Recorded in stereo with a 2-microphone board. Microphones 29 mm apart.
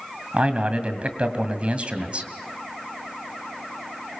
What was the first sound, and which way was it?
A man speaking, 45° right (ahead or behind).